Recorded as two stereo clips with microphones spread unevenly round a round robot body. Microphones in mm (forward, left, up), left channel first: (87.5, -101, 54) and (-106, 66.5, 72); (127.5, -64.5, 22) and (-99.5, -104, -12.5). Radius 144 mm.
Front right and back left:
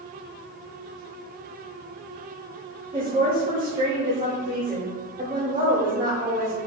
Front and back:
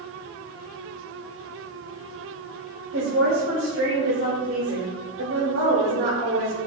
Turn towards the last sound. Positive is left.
turn(degrees=-150)